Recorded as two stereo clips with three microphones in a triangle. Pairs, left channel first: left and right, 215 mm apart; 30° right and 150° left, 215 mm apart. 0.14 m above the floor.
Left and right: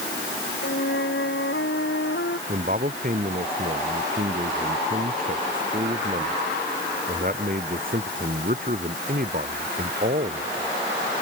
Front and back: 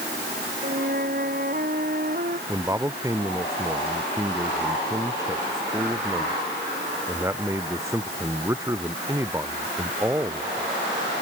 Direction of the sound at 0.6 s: 110° left.